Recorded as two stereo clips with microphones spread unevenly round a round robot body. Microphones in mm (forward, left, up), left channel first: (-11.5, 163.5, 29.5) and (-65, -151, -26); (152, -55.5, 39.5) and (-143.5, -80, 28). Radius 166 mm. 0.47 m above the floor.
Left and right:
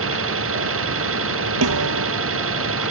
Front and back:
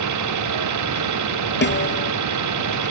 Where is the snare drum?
50° right.